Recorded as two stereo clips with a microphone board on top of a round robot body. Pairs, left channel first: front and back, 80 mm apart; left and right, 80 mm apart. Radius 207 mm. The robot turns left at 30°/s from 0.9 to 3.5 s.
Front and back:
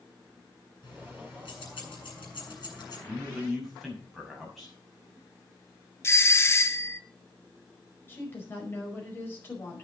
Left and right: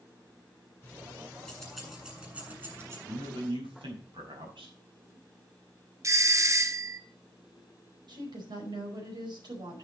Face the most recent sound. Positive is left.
turn(degrees=-65)